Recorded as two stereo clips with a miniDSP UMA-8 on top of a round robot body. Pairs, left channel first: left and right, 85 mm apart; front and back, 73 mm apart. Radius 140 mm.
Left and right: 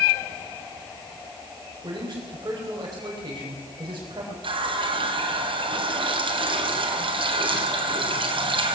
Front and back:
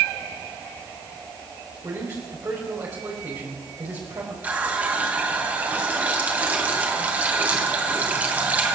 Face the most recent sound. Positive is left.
turn(degrees=-110)